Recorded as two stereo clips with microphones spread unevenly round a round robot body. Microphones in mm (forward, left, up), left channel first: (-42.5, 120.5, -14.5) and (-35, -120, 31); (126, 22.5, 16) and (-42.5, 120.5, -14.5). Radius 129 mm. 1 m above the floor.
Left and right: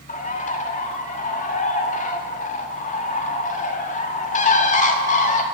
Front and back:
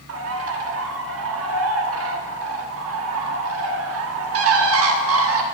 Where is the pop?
I don't hear a pop.